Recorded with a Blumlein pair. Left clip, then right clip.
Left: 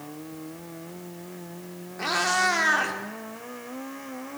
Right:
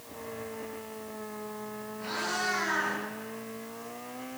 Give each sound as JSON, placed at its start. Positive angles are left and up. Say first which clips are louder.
{"t": 2.0, "sound": "a cat meowing", "louder": "left 9 dB", "azimuth_deg": 50, "distance_m": 1.9}